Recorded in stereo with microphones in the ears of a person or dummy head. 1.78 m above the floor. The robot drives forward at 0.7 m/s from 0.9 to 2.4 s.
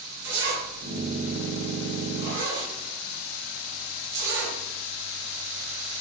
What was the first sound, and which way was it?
A zipper, 65° right (ahead or behind).